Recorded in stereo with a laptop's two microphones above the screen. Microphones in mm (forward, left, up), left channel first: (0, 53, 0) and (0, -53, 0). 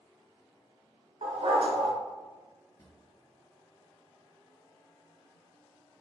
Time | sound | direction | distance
1.2 | a dog barking | 75° right (ahead or behind) | 1.5 m
2.8 | a drawer | 30° left (ahead or behind) | 1.8 m